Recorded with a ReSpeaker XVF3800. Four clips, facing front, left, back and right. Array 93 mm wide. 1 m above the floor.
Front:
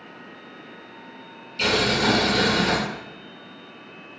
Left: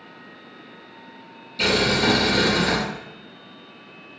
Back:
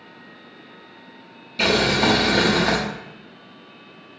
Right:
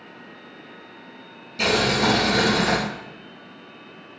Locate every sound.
1.6 s boiling: 165° right, 0.8 m